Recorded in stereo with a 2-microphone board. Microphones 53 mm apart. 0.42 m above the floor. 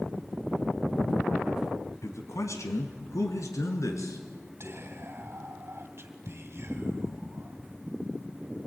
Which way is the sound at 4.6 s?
55° right (ahead or behind).